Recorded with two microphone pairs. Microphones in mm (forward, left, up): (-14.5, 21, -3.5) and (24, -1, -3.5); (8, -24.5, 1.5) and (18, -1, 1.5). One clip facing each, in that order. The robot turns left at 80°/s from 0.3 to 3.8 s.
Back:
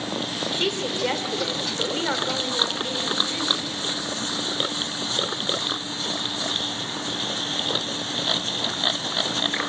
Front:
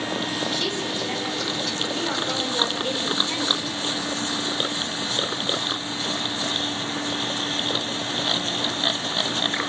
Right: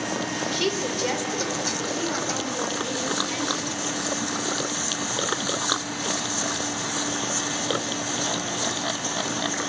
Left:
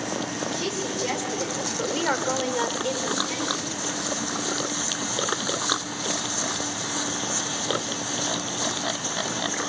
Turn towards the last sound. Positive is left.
turn(degrees=-45)